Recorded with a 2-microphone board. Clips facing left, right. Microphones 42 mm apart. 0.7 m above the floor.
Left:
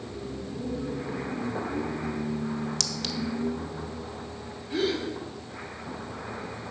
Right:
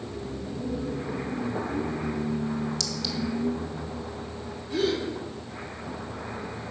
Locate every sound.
2.8 s a clink: 60° left (ahead or behind), 0.7 m
4.7 s a gasp: 10° left (ahead or behind), 5.5 m